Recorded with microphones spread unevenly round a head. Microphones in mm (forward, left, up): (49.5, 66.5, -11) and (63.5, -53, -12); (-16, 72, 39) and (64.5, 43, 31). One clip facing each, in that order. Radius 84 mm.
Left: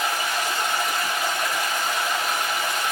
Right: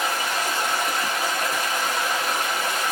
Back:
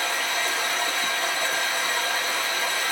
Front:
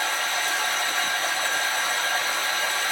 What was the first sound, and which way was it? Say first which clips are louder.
Running water: even, even; 140° right.